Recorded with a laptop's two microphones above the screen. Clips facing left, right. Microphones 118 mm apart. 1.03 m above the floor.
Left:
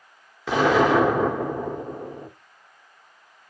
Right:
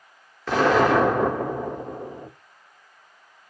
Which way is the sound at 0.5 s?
5° left (ahead or behind).